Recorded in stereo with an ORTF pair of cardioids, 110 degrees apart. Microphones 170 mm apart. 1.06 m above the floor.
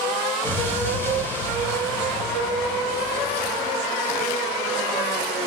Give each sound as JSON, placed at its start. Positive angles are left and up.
{"t": 0.4, "sound": "an explosion", "azimuth_deg": 15, "distance_m": 1.1}